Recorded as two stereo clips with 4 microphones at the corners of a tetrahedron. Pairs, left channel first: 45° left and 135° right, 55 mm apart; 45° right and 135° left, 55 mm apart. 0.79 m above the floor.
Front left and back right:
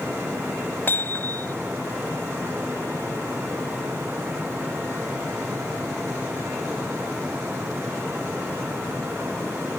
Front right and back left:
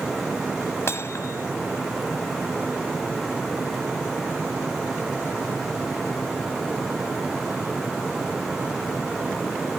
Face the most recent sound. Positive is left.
turn(degrees=-5)